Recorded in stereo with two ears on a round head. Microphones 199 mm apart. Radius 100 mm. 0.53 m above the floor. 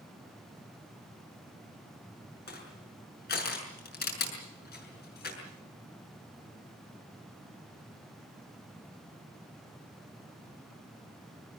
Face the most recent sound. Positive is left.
turn(degrees=45)  # may be behind; listen again after turning